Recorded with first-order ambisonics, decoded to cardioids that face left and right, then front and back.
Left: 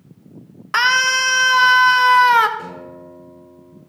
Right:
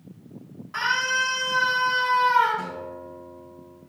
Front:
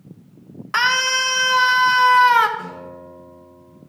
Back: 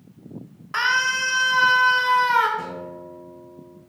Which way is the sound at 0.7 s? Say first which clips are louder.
Left 8 dB, front 3 dB; 65° left.